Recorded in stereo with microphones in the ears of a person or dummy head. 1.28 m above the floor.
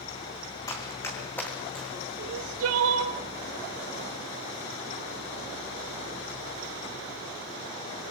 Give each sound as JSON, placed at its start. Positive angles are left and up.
{"t": 0.7, "sound": "running footsteps", "side_deg": 20, "distance_m": 4.0}
{"t": 2.2, "sound": "crying", "side_deg": -80, "distance_m": 1.9}